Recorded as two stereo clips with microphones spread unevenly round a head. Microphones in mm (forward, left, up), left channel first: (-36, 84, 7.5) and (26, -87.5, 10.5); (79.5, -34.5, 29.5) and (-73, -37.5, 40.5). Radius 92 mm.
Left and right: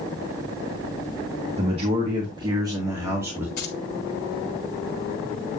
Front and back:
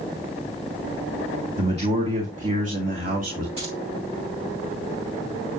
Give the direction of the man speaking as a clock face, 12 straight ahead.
4 o'clock.